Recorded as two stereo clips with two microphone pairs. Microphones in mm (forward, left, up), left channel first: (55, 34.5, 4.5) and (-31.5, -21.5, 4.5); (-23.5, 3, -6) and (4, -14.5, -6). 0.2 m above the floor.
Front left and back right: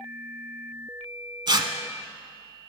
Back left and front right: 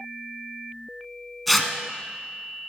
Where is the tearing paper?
125° right, 1.1 m.